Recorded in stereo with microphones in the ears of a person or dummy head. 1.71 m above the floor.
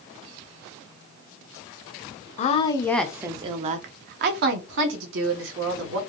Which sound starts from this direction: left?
A woman speaking, at 2.4 s.